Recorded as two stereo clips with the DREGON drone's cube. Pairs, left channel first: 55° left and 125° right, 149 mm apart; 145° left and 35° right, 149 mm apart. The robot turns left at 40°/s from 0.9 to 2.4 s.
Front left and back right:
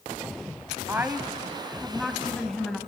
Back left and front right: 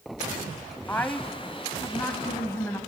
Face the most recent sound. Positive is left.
turn(degrees=135)